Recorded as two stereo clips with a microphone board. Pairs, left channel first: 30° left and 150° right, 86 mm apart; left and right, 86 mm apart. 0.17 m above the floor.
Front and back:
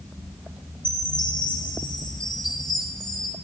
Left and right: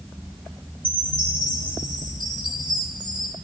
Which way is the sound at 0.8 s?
110° left.